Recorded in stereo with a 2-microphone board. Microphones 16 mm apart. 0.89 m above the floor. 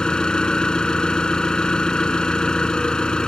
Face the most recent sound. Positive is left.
turn(degrees=65)  # may be behind; listen again after turning